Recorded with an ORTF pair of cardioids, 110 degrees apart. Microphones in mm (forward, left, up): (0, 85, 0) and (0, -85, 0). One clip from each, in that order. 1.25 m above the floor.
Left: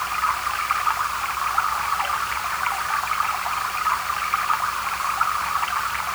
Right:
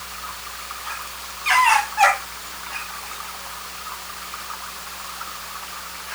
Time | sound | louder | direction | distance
0.0 | running water | left 11 dB | 70° left | ?